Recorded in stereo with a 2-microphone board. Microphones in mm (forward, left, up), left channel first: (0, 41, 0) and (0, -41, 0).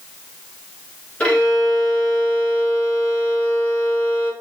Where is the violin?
15° left (ahead or behind), 1.5 m.